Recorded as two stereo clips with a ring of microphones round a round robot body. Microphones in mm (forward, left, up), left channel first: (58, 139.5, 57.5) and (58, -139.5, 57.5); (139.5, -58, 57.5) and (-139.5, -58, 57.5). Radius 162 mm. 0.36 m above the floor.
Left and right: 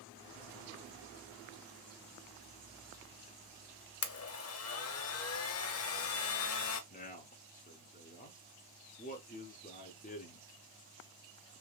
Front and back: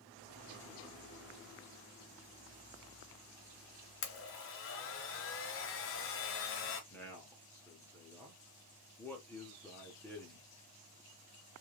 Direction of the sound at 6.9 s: 75° left.